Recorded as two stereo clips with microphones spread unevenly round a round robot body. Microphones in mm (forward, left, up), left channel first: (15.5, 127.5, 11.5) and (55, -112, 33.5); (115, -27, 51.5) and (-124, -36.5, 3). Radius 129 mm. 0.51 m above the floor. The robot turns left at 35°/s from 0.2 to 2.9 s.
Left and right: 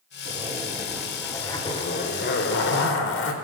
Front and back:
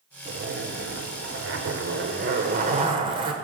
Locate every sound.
0.2 s a zipper: 145° right, 1.6 m; by 3.3 s 120° left, 1.6 m